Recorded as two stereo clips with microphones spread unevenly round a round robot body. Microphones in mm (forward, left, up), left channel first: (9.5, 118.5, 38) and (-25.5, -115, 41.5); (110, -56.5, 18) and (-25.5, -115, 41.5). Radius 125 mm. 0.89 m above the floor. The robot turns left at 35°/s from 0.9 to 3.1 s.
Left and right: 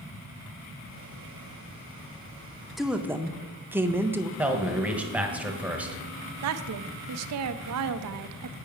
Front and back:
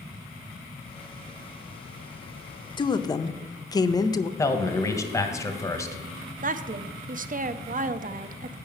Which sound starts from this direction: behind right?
A woman speaking, at 6.4 s.